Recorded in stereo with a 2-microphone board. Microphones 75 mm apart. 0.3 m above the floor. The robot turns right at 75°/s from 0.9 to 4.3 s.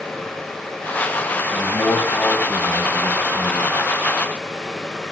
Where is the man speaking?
70° left, 2 m; by 3.8 s 125° right, 2 m.